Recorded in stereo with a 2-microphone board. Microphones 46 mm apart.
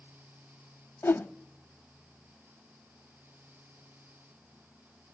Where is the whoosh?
60° left (ahead or behind), 0.6 m.